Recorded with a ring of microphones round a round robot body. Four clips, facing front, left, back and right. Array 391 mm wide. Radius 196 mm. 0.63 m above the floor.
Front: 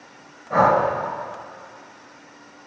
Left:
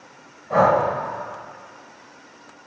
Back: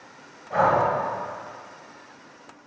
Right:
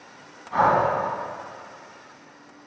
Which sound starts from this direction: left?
Breathing, at 0.5 s.